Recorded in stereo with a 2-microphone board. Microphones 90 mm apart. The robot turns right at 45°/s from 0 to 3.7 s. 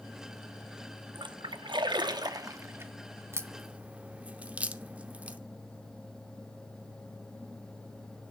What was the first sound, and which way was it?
A splash, 60° right (ahead or behind).